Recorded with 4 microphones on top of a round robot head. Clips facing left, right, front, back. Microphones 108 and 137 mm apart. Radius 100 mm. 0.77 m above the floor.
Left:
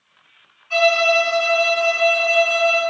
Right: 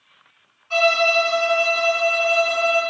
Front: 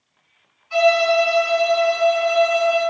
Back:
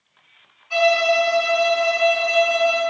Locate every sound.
0.7 s a violin: 155° right, 1.8 m